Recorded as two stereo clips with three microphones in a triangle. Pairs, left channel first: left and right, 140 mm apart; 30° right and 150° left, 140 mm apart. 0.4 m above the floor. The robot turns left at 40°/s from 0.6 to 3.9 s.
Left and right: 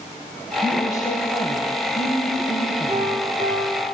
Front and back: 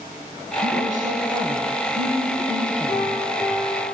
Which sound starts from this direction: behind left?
A piano, at 2.9 s.